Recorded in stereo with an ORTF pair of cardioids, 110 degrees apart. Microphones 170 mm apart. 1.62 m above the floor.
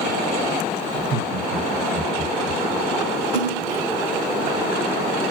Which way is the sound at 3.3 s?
70° right.